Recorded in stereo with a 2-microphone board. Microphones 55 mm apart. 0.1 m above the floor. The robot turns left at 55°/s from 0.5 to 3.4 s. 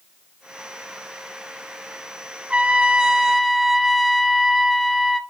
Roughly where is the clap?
I don't hear a clap.